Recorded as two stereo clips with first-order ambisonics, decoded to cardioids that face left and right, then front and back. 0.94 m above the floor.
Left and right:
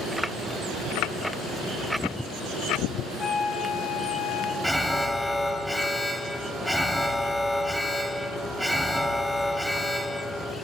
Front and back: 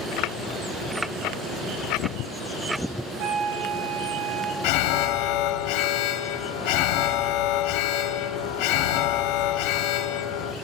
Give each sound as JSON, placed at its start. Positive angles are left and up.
{"t": 3.2, "sound": "a flute", "azimuth_deg": 160, "distance_m": 1.8}
{"t": 4.6, "sound": "an alarm", "azimuth_deg": 0, "distance_m": 0.9}